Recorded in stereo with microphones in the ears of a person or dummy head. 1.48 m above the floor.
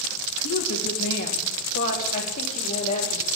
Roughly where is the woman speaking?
Left.